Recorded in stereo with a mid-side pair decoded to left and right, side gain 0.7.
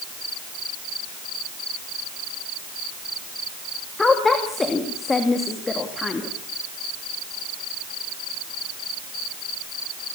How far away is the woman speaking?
About 2.5 m.